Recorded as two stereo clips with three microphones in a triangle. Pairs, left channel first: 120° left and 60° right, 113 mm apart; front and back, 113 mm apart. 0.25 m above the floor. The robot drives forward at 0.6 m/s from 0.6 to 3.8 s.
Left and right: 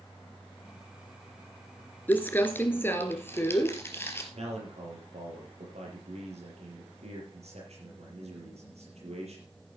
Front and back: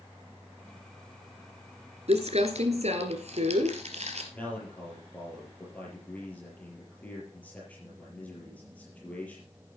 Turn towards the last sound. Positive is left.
turn(degrees=-75)